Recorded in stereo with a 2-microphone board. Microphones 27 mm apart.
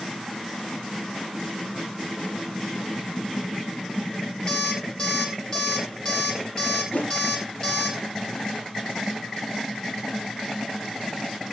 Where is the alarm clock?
30° left (ahead or behind), 3 m.